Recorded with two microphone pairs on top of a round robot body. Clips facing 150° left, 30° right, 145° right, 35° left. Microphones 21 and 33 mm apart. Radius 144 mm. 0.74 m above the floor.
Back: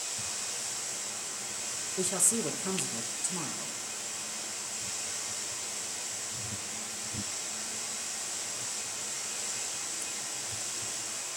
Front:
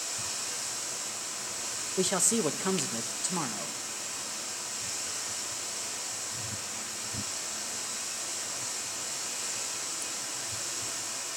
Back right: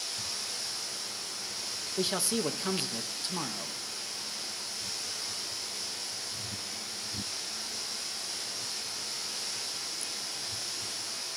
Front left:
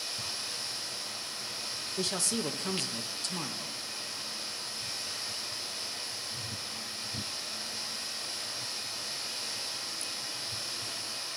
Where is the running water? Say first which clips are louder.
Front 1 dB, even; 25° right, 9 m.